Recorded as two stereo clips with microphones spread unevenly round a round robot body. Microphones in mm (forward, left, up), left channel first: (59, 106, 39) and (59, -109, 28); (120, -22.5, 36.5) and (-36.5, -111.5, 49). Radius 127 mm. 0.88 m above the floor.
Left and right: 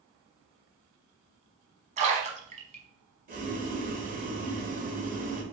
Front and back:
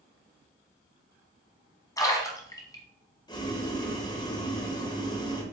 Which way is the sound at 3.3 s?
40° right.